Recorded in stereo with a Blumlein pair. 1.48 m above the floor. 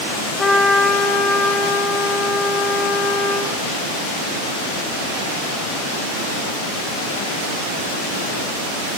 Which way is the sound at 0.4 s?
15° left.